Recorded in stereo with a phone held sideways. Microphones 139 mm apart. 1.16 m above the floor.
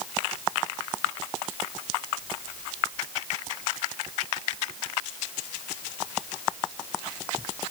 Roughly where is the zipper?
I don't hear a zipper.